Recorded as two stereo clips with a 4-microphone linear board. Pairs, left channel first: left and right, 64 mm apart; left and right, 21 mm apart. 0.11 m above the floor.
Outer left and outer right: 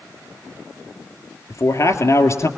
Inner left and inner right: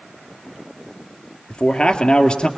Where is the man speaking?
50° left (ahead or behind), 2.5 m.